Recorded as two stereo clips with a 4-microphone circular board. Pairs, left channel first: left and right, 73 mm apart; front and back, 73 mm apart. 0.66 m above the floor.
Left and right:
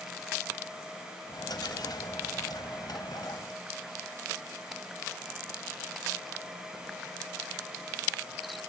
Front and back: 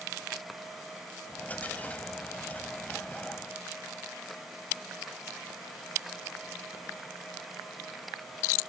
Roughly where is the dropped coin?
Left.